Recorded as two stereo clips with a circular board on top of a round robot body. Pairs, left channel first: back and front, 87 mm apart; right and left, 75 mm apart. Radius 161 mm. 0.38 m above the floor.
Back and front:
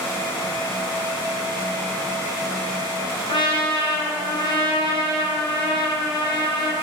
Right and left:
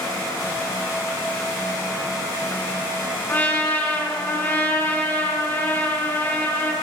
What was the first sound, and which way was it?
A trumpet, 160° right.